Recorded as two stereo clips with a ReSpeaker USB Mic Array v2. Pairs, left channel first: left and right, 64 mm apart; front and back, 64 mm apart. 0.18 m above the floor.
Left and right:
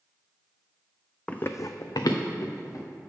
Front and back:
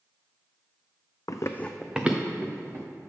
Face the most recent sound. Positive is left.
turn(degrees=125)